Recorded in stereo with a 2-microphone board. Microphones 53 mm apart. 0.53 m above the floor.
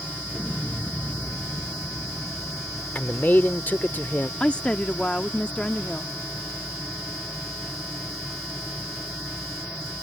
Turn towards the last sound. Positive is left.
turn(degrees=20)  # may be behind; listen again after turning